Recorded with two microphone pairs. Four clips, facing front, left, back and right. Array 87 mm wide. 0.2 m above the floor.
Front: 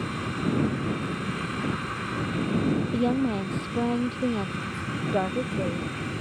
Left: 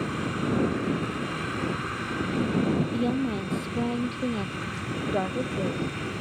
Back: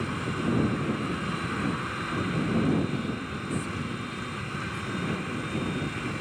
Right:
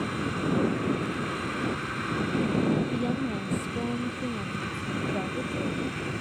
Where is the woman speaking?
10° left; by 5.9 s 35° left.